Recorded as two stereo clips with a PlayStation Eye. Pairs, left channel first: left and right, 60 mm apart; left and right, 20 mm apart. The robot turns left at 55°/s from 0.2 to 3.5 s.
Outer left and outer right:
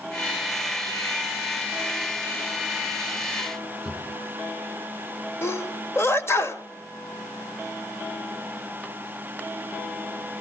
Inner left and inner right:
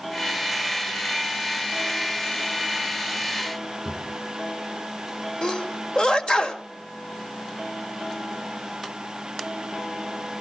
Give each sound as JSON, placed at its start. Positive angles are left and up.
{"t": 3.8, "sound": "a drawer", "side_deg": 0, "distance_m": 9.0}
{"t": 5.4, "sound": "a sneeze", "side_deg": 45, "distance_m": 1.5}